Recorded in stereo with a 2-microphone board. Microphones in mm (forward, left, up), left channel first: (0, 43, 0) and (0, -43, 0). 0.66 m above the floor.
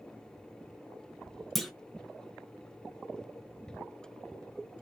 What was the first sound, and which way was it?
A clunk, centre (ahead or behind).